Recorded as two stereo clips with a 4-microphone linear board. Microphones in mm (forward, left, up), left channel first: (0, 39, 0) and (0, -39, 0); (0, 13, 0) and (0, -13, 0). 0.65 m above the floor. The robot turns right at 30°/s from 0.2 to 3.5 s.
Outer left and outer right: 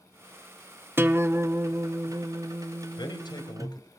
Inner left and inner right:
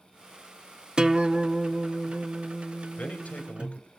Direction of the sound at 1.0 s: 140° right.